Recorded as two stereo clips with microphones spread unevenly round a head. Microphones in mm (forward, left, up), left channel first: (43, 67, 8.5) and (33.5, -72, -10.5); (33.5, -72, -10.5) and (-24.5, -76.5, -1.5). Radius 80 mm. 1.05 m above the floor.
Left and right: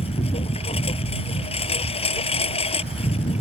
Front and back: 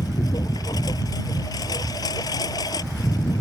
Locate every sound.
0.0 s a lawn mower: 45° left